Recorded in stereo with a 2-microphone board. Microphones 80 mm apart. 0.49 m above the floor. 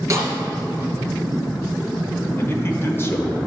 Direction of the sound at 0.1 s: 35° right (ahead or behind).